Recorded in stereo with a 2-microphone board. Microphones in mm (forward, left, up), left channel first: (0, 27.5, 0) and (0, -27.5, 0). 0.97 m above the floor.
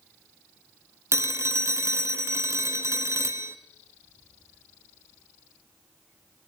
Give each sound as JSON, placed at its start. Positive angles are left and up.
{"t": 1.1, "sound": "a phone ringing", "side_deg": -55, "distance_m": 0.6}